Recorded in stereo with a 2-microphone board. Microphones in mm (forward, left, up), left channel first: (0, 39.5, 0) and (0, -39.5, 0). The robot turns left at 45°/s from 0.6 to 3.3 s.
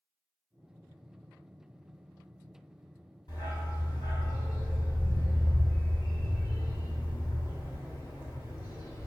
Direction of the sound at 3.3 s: 60° left (ahead or behind).